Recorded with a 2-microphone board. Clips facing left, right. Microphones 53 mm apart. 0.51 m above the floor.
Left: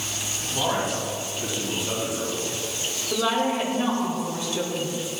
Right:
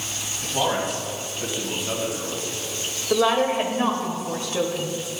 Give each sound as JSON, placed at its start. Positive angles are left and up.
{"t": 0.4, "sound": "a man speaking", "side_deg": -40, "distance_m": 3.0}
{"t": 3.1, "sound": "a woman speaking", "side_deg": -50, "distance_m": 1.8}